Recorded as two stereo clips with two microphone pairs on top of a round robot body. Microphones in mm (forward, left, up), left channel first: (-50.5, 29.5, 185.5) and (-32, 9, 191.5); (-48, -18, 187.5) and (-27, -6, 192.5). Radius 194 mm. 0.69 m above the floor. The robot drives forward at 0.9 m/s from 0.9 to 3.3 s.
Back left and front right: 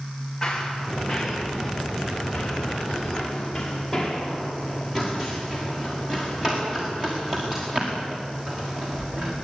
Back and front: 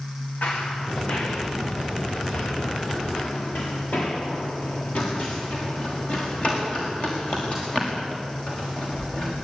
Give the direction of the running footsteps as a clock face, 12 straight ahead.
5 o'clock.